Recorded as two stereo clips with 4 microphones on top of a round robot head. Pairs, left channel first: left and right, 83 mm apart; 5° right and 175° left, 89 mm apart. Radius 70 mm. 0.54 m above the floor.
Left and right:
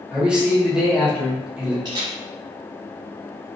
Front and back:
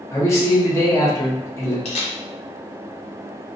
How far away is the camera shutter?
About 0.6 m.